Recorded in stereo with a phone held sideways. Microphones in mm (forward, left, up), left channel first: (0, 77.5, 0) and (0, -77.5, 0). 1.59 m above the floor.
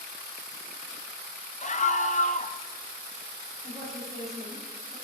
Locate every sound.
1.6 s a scream: 50° left (ahead or behind), 0.7 m
3.6 s a woman speaking: 40° right (ahead or behind), 5.5 m